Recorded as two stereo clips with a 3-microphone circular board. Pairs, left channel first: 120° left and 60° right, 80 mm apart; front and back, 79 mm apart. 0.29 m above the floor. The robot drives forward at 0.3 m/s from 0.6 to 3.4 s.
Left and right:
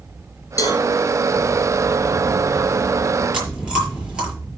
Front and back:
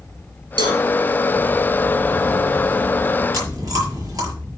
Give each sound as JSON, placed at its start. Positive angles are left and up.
{"t": 0.6, "sound": "a cowbell", "azimuth_deg": 160, "distance_m": 2.5}
{"t": 3.3, "sound": "chewing", "azimuth_deg": -140, "distance_m": 6.0}